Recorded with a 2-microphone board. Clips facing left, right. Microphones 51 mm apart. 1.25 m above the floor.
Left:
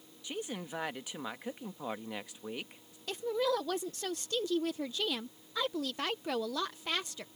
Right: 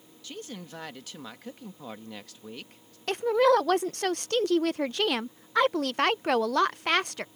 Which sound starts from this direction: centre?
A woman speaking, at 0.2 s.